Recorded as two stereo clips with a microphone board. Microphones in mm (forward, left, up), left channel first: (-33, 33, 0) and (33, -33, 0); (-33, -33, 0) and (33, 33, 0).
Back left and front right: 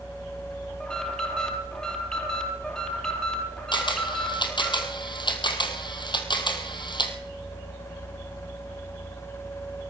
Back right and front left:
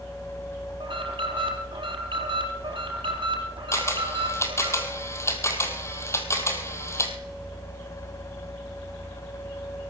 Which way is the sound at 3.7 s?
165° left.